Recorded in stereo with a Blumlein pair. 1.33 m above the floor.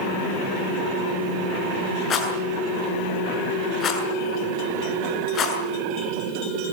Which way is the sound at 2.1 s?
30° left.